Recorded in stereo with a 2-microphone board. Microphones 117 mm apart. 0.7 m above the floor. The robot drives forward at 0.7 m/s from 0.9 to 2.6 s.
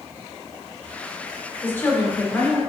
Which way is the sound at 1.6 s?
20° left (ahead or behind).